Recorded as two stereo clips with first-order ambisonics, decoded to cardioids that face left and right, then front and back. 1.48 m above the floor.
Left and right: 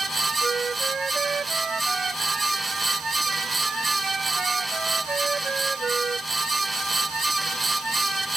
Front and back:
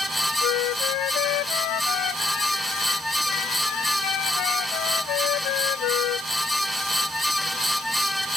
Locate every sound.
0.4 s a flute: 20° right